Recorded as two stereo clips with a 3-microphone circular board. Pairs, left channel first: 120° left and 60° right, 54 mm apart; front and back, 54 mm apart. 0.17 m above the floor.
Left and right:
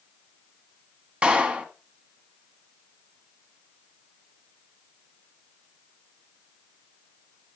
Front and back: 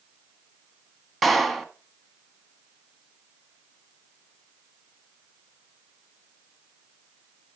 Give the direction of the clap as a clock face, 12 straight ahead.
3 o'clock.